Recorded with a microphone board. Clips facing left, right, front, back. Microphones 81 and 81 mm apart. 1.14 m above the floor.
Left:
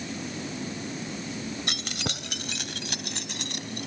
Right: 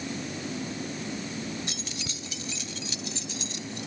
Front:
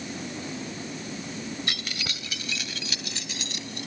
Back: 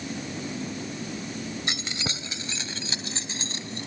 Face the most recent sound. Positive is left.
turn(degrees=120)